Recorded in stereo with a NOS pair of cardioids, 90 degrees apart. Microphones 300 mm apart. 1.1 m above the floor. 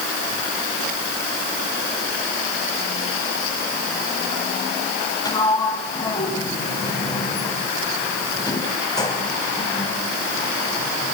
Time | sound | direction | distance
5.2 | a sliding door | 10° left | 5.5 m